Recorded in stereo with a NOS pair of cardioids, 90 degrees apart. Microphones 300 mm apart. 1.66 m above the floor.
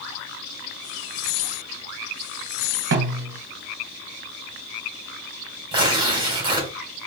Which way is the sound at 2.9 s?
40° right.